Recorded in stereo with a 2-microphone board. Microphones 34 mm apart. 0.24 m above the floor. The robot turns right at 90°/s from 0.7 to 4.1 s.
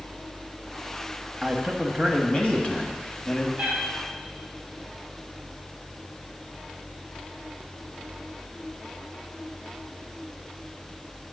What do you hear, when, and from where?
1.4 s a man speaking: 20° right, 1.2 m; by 3.5 s 165° left, 1.2 m
3.6 s a cat meowing: 40° right (ahead or behind), 3.5 m; by 3.8 s 60° right (ahead or behind), 3.5 m